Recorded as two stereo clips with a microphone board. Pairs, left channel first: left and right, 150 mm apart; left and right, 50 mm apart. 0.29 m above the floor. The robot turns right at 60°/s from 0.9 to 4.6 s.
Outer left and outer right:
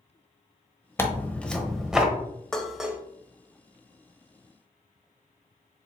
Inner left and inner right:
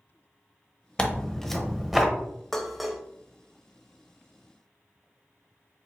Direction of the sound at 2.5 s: 5° left (ahead or behind).